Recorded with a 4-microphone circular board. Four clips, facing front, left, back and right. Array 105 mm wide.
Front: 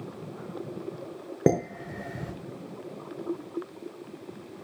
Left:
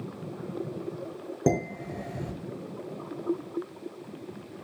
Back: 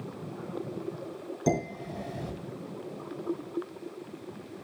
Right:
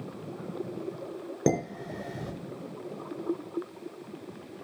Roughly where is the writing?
No writing in this recording.